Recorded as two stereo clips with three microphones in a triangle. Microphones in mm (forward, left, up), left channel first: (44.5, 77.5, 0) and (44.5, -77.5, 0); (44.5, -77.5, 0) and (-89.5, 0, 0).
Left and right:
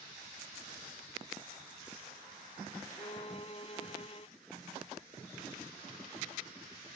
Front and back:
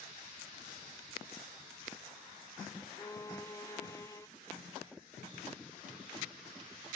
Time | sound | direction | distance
3.0 | a violin | 40° left | ?